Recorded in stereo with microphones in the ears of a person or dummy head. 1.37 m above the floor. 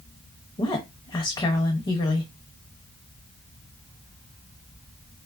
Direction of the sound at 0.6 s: 25° left (ahead or behind).